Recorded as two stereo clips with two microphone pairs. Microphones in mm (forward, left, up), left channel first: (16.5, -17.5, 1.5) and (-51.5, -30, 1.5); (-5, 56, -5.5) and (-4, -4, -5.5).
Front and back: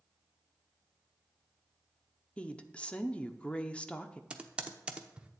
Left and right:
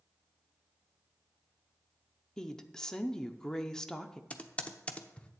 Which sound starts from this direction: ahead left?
A woman speaking, at 2.4 s.